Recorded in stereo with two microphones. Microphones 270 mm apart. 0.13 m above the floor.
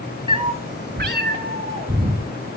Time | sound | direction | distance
0.3 | a cat meowing | 20° right (ahead or behind) | 0.5 m